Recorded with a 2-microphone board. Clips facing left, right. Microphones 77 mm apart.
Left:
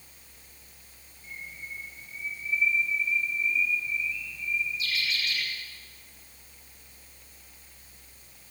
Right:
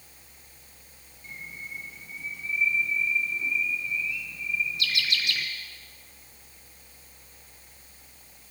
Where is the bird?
80° right, 3 m.